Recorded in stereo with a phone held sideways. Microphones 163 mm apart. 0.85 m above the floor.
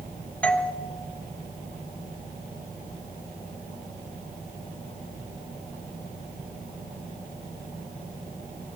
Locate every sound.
0.4 s a doorbell: 5° left (ahead or behind), 1.1 m